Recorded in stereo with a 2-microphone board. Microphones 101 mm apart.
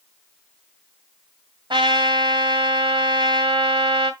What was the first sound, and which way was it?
A trumpet, 50° right (ahead or behind).